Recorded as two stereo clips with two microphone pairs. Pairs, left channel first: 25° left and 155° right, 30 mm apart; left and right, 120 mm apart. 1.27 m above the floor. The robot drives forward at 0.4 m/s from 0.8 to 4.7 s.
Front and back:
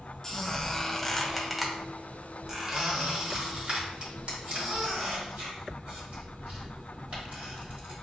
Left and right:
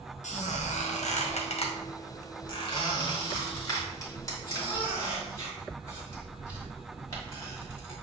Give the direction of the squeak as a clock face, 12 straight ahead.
9 o'clock.